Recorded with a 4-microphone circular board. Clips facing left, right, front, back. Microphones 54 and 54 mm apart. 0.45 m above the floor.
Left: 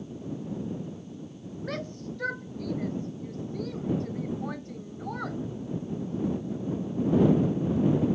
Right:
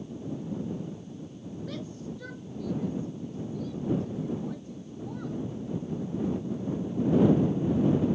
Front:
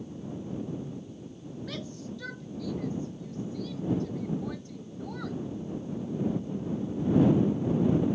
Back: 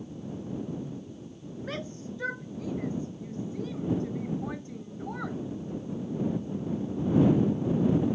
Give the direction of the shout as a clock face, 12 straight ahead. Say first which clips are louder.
Left 4 dB, back 3 dB; 8 o'clock.